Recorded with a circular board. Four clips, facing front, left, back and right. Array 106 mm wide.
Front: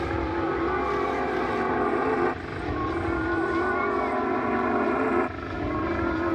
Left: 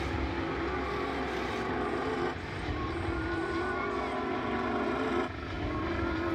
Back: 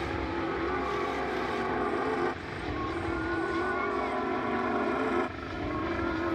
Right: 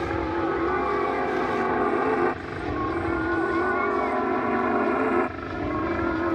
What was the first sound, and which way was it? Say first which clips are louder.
A helicopter: right 8 dB, front 5 dB; 60° right.